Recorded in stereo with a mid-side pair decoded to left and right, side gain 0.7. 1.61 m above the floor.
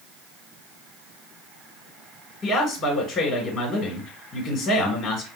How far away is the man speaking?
About 1.7 m.